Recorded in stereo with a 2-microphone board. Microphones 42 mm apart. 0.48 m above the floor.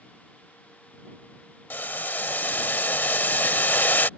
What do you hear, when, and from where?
1.7 s boiling: 50° left (ahead or behind)